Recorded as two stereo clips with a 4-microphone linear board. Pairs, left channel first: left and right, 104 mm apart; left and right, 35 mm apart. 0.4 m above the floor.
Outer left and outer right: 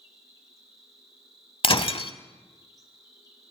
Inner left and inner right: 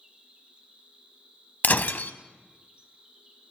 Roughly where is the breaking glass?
Left.